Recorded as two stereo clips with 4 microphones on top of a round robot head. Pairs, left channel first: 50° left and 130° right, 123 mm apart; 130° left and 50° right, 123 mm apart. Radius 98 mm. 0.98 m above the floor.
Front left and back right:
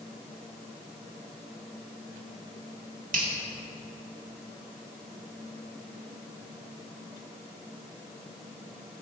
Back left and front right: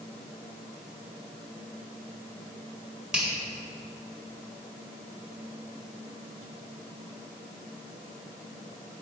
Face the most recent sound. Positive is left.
turn(degrees=-130)